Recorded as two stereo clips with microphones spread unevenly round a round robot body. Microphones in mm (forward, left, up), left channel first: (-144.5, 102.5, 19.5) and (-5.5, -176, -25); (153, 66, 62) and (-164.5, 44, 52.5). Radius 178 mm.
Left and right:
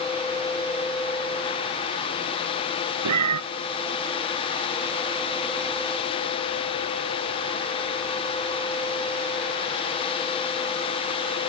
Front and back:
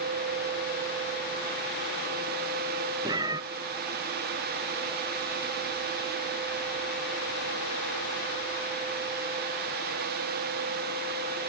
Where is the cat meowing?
95° right.